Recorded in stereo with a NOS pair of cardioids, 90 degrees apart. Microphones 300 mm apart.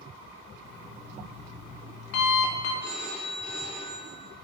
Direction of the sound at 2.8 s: 70° left.